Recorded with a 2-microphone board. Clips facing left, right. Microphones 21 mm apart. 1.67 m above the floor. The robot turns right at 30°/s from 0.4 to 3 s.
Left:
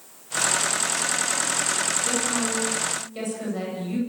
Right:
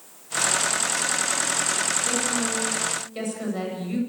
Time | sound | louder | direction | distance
2.0 | a woman speaking | even | 15° left (ahead or behind) | 9.5 m